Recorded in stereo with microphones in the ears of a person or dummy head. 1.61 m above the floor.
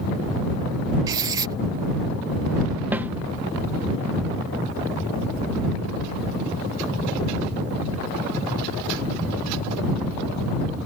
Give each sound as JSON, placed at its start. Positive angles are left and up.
{"t": 1.1, "sound": "writing", "side_deg": -25}
{"t": 2.9, "sound": "a snare drum", "side_deg": -10}